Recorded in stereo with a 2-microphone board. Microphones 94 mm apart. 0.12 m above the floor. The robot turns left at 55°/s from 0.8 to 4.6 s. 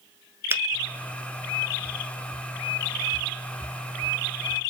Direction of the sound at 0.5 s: 25° right (ahead or behind).